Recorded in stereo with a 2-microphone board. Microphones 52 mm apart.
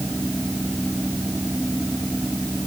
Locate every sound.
Only background noise.